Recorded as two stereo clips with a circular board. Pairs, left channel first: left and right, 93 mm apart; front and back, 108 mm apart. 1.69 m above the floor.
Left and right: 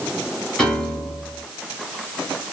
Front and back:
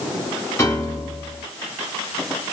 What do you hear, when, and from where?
0.6 s a piano: 10° left, 1.5 m